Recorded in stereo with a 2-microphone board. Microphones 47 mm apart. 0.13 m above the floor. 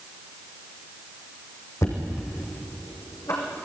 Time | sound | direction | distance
1.8 | knocking | 80° left | 5 m